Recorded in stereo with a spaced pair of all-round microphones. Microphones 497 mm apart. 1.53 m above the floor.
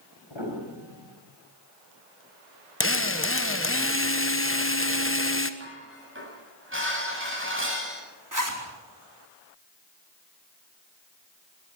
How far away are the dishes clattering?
About 8 m.